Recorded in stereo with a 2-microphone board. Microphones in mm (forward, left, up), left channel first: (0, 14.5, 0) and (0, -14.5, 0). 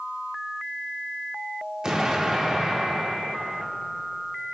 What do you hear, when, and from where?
1.8 s an explosion: 25° right (ahead or behind), 1.1 m